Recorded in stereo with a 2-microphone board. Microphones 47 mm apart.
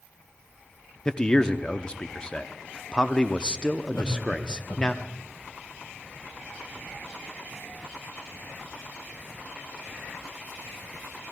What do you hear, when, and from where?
1.1 s a man speaking: 20° left (ahead or behind), 0.6 m
3.9 s laughter: 70° left (ahead or behind), 3 m